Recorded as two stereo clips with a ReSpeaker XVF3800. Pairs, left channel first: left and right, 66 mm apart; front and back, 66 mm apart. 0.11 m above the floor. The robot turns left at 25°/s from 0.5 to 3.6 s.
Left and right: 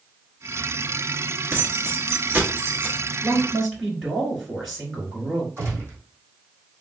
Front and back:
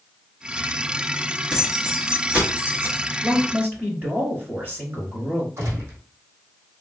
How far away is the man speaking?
About 1.9 m.